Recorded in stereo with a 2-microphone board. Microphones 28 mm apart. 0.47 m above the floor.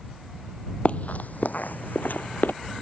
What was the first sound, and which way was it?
Running footsteps, 45° left (ahead or behind).